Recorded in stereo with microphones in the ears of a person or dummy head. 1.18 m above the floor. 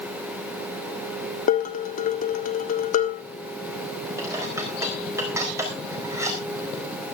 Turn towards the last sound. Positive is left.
turn(degrees=-10)  # may be behind; listen again after turning